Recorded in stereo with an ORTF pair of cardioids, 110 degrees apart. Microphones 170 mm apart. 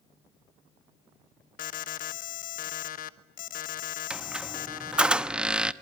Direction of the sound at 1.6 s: 55° left.